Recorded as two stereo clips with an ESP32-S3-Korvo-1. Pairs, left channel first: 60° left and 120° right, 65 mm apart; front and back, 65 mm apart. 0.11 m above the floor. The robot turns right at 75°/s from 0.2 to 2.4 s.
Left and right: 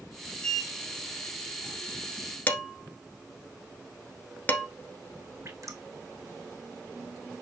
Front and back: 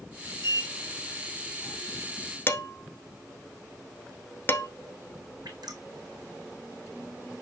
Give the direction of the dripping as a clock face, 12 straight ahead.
6 o'clock.